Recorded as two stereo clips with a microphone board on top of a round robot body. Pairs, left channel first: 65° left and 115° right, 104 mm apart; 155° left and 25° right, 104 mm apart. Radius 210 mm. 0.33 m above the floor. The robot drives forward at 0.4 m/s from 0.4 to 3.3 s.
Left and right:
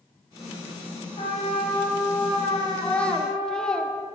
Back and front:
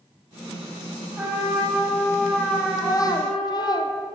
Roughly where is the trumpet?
Ahead left.